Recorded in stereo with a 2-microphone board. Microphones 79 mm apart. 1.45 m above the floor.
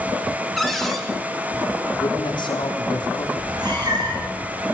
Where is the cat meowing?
60° right (ahead or behind), 9.5 m.